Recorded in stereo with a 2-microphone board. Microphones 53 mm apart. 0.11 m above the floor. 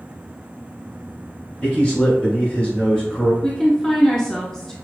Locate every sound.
1.6 s a man speaking: 25° left (ahead or behind), 1.7 m
3.4 s a woman speaking: 10° left (ahead or behind), 1.3 m